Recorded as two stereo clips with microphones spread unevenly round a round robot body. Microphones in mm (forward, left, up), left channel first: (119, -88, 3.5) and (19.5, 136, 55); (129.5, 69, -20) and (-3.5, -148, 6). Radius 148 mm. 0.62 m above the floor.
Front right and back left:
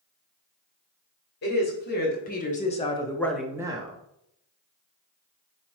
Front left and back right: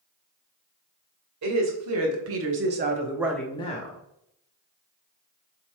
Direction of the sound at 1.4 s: 110° right.